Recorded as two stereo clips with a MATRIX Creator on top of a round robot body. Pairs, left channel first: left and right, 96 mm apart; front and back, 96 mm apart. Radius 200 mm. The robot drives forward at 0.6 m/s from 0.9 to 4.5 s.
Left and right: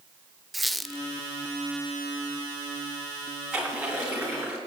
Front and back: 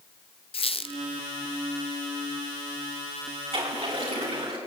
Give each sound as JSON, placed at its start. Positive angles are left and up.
{"t": 0.5, "sound": "a squeak", "azimuth_deg": 0, "distance_m": 1.0}
{"t": 3.5, "sound": "a splash", "azimuth_deg": -170, "distance_m": 6.0}